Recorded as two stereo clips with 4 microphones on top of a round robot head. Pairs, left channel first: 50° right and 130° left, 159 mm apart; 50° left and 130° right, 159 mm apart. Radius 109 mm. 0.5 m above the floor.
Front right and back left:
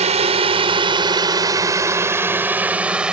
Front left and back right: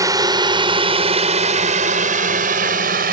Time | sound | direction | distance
0.0 | a drone | 165° left | ?